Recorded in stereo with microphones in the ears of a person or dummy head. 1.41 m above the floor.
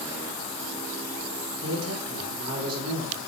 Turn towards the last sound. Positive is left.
turn(degrees=-85)